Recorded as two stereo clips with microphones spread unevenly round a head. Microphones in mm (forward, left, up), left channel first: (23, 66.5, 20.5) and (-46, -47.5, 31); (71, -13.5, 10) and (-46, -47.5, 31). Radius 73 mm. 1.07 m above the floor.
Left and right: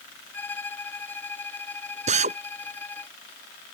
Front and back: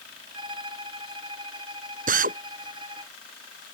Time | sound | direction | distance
0.3 | a violin | 135° left | ?
2.1 | a drill | 160° right | ?